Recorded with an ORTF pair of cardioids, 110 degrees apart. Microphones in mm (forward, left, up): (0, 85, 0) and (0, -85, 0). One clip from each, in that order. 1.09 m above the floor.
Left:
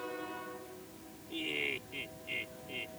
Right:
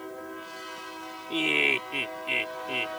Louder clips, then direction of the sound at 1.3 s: Right 12 dB; 65° right.